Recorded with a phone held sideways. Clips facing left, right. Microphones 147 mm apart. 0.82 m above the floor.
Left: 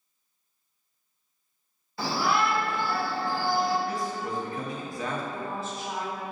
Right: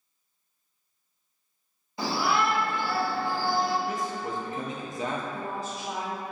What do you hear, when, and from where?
2.0 s a shout: 15° right (ahead or behind), 1.3 m; by 3.8 s 45° right (ahead or behind), 2 m
3.9 s a man speaking: 20° right (ahead or behind), 0.5 m
5.3 s a woman speaking: 35° right (ahead or behind), 1.0 m